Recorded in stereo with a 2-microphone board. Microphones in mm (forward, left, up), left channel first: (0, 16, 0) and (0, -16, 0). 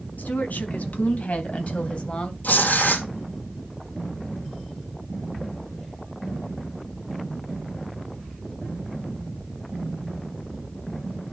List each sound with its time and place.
0.2 s a woman speaking: 60° left (ahead or behind), 4 m; by 2.3 s 30° left (ahead or behind), 2.5 m
2.4 s tearing paper: 60° left (ahead or behind), 3.5 m